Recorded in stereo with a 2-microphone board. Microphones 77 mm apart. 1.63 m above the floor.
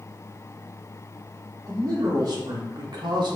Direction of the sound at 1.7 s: 55° right (ahead or behind).